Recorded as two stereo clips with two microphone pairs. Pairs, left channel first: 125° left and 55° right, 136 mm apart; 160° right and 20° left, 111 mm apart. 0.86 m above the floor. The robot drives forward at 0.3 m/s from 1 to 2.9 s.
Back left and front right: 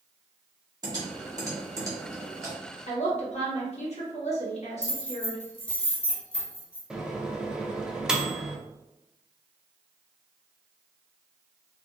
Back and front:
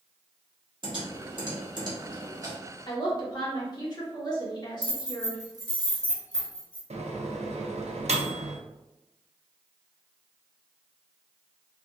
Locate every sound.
0.8 s typing on a keyboard: 5° right, 1.4 m; by 2.5 s 10° right, 1.0 m
2.9 s a woman speaking: 155° left, 1.2 m
4.8 s keys jangling: 75° left, 1.0 m
6.9 s a microwave: 25° left, 0.5 m